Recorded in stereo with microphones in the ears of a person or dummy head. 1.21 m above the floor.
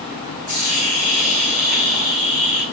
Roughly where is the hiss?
Right.